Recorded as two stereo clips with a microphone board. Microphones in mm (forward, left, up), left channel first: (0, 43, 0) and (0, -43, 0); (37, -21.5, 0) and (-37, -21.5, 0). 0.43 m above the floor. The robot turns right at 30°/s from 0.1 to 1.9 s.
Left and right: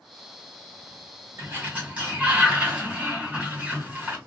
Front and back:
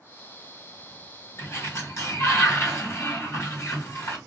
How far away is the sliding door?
About 1.4 m.